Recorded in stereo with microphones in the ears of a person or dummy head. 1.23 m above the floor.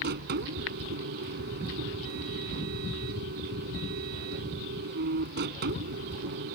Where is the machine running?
60° right (ahead or behind).